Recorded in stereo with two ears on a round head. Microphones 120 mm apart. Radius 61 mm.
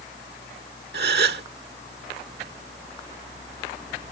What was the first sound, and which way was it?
A gasp, 80° right.